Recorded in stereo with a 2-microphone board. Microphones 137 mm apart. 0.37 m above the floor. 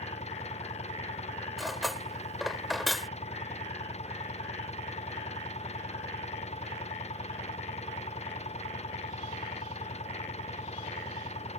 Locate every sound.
0.0 s an engine running: 50° left (ahead or behind)
1.6 s cutlery clinking: centre (ahead or behind)